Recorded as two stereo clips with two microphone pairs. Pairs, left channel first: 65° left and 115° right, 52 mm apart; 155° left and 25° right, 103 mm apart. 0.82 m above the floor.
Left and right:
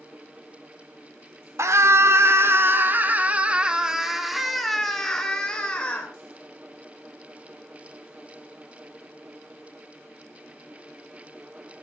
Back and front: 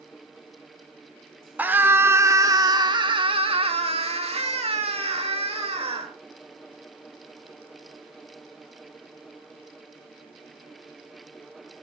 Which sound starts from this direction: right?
A scream, at 1.6 s.